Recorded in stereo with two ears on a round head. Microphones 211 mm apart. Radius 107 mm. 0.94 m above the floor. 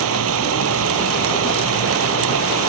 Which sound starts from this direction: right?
Running water, at 0.0 s.